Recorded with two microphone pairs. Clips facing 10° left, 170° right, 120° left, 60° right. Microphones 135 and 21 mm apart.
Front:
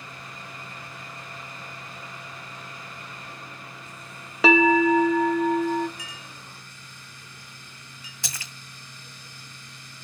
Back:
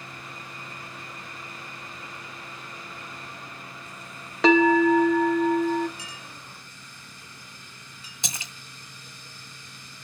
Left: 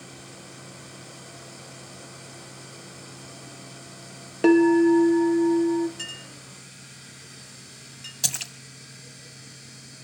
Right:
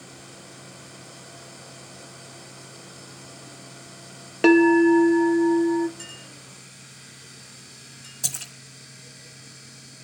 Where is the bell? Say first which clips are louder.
Back 1 dB, right 2 dB; 75° right, 0.7 m.